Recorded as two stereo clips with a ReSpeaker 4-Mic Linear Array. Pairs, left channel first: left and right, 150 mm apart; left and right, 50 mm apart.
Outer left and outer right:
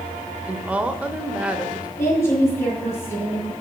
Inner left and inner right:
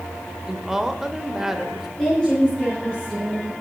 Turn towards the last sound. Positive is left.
turn(degrees=20)  # may be behind; listen again after turning